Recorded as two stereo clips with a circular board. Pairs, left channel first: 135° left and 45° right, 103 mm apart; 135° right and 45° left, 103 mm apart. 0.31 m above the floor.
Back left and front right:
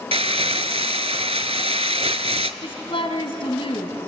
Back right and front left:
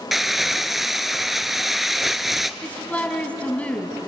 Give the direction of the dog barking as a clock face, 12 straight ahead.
I don't hear a dog barking.